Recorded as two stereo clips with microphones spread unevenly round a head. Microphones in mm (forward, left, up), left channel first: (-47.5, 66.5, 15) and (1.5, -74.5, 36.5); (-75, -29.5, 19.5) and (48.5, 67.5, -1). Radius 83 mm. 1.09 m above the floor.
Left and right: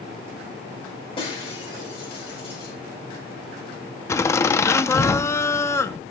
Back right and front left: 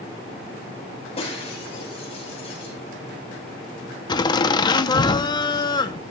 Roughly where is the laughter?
Behind.